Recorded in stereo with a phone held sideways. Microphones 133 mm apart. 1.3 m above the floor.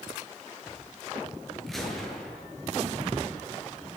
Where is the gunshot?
Centre (ahead or behind), 7.5 m.